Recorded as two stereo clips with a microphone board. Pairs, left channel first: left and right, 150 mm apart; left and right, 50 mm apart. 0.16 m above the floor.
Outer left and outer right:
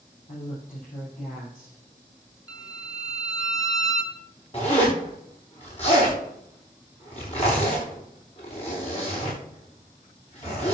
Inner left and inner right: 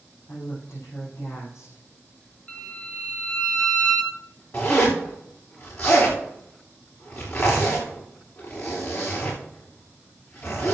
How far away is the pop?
No pop in this recording.